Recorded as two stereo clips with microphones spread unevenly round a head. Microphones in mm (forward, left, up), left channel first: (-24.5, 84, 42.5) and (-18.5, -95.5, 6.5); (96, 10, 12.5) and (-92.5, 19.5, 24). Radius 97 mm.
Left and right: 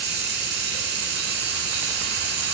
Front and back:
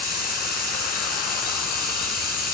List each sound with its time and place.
0.0 s running water: 45° right, 3 m